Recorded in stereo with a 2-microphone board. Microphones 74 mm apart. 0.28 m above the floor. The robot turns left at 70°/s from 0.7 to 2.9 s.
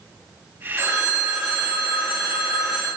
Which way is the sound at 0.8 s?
135° right.